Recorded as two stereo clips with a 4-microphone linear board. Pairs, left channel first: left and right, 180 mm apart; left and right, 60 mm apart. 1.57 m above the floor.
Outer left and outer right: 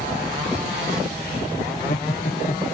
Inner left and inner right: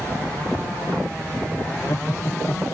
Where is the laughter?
50° left (ahead or behind).